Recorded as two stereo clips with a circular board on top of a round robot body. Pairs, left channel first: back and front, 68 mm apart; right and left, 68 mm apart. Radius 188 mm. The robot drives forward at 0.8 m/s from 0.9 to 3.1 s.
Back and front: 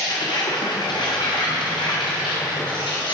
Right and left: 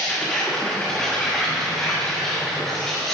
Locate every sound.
0.0 s an insect: 170° right, 1.2 m; by 3.1 s 175° right, 3 m